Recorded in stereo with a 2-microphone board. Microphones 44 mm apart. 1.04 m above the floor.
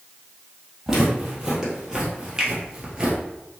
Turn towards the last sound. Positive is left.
turn(degrees=-15)  # may be behind; listen again after turning